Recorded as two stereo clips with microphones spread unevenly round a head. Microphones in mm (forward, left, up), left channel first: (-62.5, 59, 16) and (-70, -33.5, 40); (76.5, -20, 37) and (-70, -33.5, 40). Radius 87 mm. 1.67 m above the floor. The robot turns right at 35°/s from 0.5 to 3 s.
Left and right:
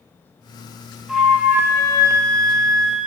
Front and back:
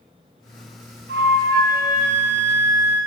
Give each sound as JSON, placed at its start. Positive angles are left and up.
{"t": 1.1, "sound": "a flute", "azimuth_deg": -175, "distance_m": 0.6}